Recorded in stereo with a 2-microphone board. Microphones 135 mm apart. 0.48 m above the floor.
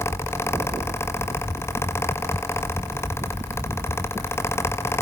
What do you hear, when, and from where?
Only background noise.